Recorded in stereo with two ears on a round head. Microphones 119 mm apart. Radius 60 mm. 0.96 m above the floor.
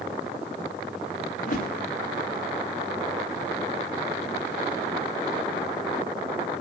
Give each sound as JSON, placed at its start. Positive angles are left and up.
{"t": 1.4, "sound": "a whoosh", "side_deg": 65, "distance_m": 3.0}